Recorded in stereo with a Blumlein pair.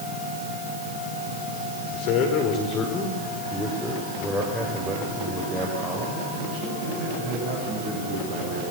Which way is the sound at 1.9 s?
45° left.